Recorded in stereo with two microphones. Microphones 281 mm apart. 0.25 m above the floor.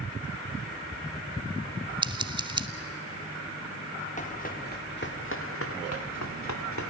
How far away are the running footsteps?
About 3 m.